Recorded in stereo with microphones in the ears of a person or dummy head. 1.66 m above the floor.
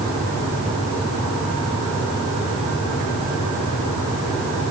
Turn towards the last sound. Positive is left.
No sound to turn to.